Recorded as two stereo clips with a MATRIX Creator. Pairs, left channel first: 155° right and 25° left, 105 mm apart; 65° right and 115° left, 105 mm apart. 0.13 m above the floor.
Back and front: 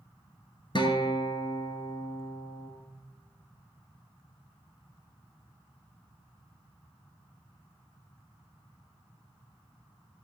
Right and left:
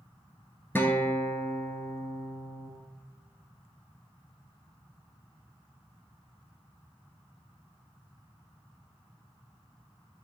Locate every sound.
0.8 s a guitar: 135° right, 1.5 m